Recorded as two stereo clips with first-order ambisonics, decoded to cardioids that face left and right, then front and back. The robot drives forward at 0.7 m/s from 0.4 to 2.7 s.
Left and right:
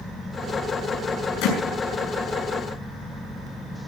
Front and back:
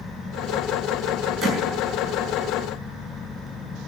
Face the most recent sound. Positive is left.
turn(degrees=120)